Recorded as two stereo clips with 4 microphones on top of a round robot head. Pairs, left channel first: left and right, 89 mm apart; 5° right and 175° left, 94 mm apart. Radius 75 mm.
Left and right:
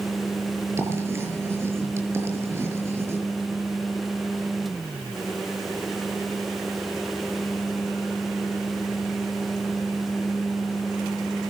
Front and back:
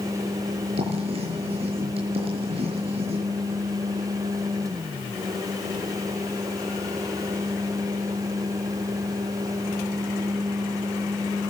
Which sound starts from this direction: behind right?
Writing, at 0.8 s.